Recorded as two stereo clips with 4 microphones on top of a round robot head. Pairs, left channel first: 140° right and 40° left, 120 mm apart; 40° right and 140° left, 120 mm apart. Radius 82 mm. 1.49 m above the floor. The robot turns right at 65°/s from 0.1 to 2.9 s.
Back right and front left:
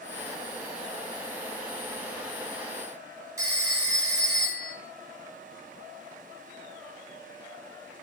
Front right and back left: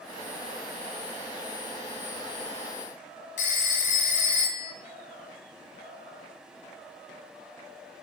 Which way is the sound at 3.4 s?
20° right.